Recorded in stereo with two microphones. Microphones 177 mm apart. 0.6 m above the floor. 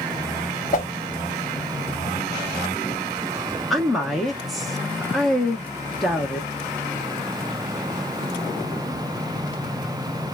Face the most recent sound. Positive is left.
turn(degrees=0)  # may be behind; listen again after turning